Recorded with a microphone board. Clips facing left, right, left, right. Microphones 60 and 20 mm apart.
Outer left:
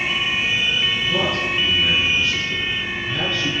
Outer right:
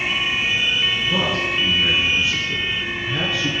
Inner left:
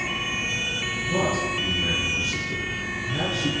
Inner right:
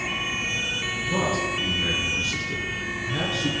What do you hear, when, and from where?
1.1 s a man speaking: 15° right (ahead or behind), 1.1 m